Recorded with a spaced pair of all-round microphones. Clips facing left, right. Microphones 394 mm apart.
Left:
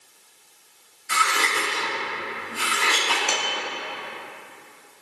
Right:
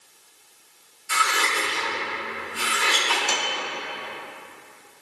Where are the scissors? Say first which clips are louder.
Left 1 dB; 80° left, 6 m.